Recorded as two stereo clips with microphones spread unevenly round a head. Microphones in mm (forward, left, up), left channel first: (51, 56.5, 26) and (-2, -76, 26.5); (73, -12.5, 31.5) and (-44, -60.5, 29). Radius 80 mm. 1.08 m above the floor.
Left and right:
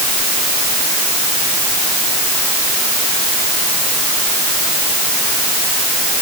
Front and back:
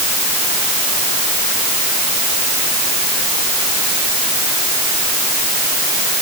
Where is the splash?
I don't hear a splash.